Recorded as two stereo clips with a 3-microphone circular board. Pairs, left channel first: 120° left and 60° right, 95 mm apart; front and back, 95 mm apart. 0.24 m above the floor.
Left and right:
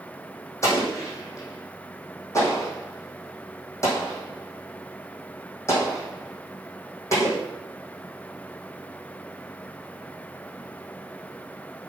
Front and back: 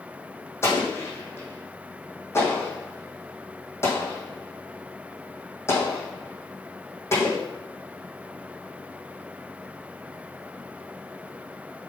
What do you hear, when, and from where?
0.6 s an explosion: 60° left, 4 m